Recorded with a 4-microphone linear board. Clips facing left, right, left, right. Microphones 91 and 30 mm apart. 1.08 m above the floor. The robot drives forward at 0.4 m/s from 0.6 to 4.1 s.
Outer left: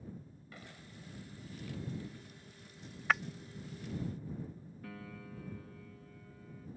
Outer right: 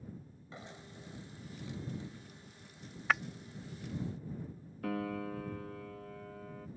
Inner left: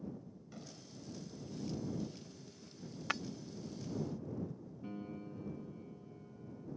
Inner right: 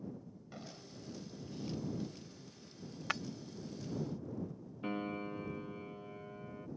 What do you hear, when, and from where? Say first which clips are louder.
0.5 s an explosion: outer right 4 dB, inner right 3 dB; 25° right (ahead or behind)
3.1 s breaking glass: even, even; centre (ahead or behind)
4.8 s a piano: outer right 13 dB, inner right 7 dB; 80° right